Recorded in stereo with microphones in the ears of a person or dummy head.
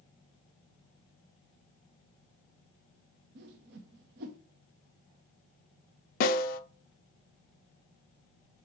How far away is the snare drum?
About 0.6 m.